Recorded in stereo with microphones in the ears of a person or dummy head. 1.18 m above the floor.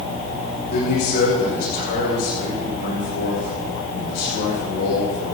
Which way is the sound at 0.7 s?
55° left (ahead or behind).